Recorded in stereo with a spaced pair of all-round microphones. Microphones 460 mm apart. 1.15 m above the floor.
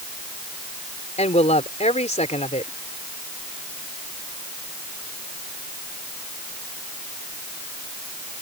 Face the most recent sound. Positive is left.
turn(degrees=15)  # may be behind; listen again after turning